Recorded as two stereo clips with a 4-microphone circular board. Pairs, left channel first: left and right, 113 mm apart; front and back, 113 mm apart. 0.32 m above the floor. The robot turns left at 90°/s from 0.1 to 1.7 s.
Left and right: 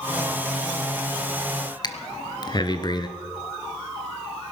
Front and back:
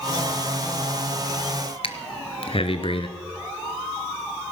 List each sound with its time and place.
1.8 s breathing: 40° left, 1.1 m